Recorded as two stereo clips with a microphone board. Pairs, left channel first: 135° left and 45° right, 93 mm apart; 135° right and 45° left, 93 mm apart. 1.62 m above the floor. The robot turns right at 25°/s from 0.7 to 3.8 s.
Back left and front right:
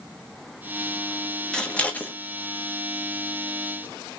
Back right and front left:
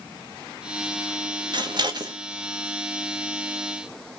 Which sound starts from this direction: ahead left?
Scissors, at 1.5 s.